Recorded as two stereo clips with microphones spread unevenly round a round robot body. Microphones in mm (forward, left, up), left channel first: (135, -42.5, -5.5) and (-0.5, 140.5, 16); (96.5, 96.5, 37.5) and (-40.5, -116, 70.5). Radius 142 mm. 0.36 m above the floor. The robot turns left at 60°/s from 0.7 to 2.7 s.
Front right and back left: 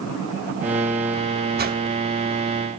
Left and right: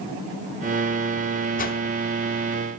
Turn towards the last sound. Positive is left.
turn(degrees=25)